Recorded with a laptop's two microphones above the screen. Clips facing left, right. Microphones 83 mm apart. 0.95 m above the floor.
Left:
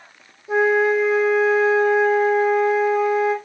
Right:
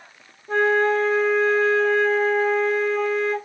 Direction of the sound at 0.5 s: 10° left (ahead or behind).